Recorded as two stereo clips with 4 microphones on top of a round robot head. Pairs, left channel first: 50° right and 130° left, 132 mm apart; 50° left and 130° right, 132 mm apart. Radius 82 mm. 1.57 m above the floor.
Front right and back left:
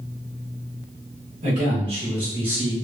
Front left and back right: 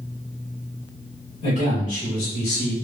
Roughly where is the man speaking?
Left.